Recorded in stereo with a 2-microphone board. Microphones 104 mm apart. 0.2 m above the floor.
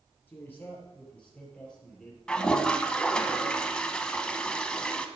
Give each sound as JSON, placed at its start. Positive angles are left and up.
{"t": 0.3, "sound": "a man speaking", "side_deg": 20, "distance_m": 4.0}
{"t": 2.3, "sound": "a toilet flushing", "side_deg": 10, "distance_m": 0.8}